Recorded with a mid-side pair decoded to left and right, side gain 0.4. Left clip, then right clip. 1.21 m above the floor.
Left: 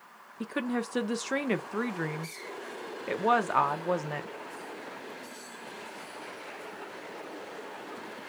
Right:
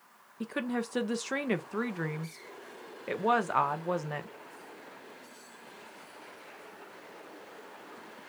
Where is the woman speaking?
15° left, 0.7 m.